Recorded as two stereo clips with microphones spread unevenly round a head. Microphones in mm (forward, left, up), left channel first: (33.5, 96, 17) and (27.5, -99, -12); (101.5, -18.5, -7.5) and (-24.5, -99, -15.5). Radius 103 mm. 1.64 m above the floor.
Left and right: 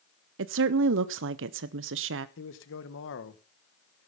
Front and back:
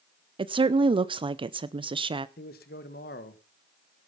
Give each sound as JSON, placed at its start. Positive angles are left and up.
{"t": 0.4, "sound": "a woman speaking", "azimuth_deg": -95, "distance_m": 0.6}
{"t": 2.4, "sound": "a man speaking", "azimuth_deg": 75, "distance_m": 1.5}